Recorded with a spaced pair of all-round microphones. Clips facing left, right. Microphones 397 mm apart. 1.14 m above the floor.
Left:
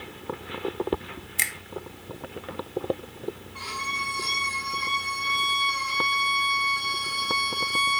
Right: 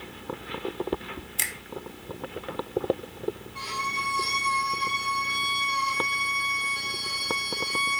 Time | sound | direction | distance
1.4 | a finger snap | 40° left (ahead or behind) | 0.6 m
3.5 | a violin | 50° right (ahead or behind) | 4 m